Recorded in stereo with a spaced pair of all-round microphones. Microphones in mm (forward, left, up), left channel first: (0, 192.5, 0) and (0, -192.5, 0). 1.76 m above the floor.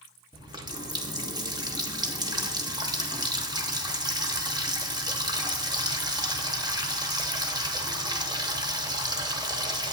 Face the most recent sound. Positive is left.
turn(degrees=-10)  # may be behind; listen again after turning